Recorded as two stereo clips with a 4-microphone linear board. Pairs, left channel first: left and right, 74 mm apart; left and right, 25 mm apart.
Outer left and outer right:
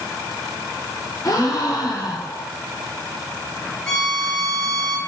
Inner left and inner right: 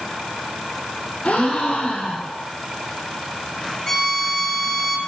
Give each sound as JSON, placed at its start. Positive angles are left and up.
{"t": 1.2, "sound": "a gasp", "side_deg": 45, "distance_m": 3.0}
{"t": 3.9, "sound": "a violin", "side_deg": 10, "distance_m": 2.0}